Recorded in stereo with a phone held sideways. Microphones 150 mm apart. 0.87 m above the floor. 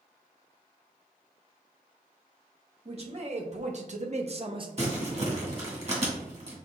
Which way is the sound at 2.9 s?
40° right (ahead or behind).